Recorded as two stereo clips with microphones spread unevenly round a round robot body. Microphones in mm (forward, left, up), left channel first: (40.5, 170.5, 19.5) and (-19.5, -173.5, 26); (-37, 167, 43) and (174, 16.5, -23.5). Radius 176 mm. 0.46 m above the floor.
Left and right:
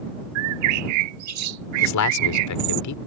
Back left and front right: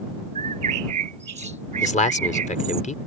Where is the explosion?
I don't hear an explosion.